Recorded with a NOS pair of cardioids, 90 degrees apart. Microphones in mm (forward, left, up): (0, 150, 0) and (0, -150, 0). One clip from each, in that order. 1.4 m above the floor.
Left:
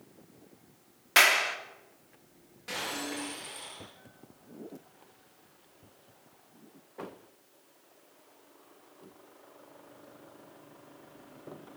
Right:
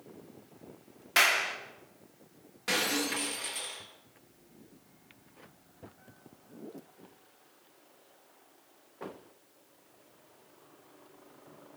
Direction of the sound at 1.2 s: 25° left.